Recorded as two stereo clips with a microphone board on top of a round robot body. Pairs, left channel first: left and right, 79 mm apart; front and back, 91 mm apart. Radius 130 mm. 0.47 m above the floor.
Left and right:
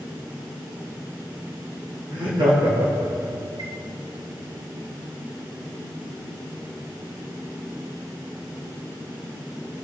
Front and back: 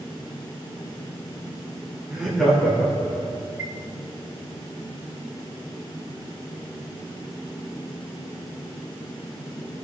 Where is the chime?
105° right, 3 m.